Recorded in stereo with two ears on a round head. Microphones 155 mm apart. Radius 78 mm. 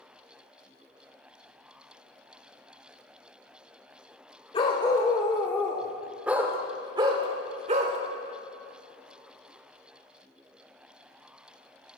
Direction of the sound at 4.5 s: 25° left (ahead or behind).